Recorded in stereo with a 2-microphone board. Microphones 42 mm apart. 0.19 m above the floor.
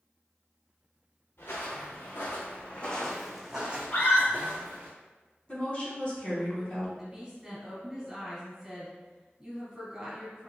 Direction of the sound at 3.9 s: 40° left (ahead or behind).